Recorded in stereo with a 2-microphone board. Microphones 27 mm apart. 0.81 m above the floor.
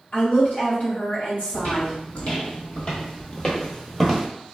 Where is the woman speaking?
55° left (ahead or behind), 1.2 m.